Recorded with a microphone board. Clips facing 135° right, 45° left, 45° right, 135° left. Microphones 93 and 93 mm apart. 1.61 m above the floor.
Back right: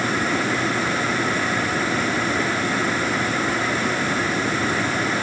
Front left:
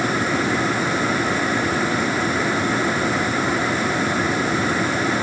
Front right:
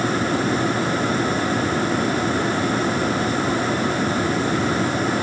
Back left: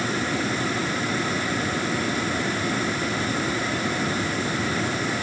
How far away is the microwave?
I don't hear a microwave.